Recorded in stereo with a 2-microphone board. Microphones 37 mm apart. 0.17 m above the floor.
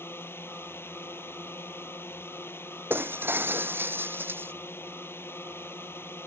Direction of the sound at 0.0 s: 70° left (ahead or behind).